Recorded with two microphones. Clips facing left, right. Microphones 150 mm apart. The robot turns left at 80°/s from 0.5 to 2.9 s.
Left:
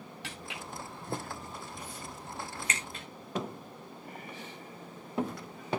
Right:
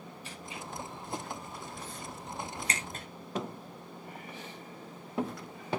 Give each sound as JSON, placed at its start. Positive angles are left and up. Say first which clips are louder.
{"t": 0.2, "sound": "footsteps", "louder": "even", "side_deg": 75, "distance_m": 3.5}